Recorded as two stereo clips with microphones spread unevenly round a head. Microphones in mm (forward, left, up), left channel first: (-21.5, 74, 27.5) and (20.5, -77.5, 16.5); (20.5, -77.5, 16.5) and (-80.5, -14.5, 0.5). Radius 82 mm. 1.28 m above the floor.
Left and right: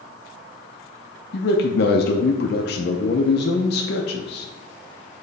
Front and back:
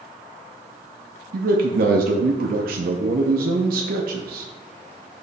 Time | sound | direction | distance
1.3 | a man speaking | 135° left | 0.6 m